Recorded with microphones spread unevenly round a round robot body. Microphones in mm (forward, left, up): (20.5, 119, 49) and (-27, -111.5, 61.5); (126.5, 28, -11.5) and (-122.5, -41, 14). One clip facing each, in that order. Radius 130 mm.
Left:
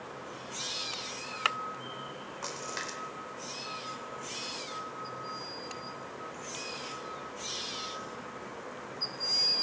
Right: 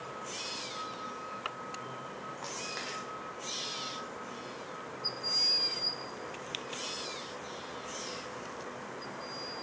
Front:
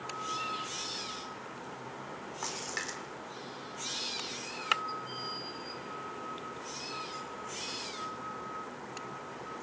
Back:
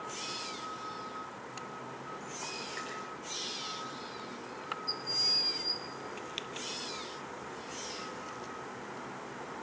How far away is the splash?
About 4.5 m.